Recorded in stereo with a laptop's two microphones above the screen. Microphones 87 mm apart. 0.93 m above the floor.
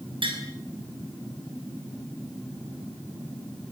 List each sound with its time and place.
0.2 s tapping: 85° right, 6.5 m